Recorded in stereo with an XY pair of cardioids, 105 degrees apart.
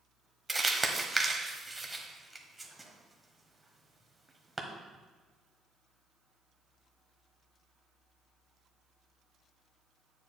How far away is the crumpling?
About 1.1 m.